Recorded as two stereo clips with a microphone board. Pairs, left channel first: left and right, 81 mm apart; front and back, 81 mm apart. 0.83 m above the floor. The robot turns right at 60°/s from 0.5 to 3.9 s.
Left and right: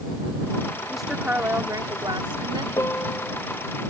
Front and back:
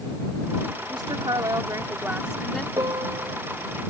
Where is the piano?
140° left; by 3.4 s 175° left.